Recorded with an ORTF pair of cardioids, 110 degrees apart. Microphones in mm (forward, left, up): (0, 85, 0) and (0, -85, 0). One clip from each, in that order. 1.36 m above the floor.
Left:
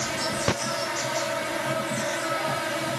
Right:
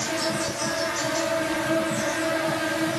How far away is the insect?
About 1.1 m.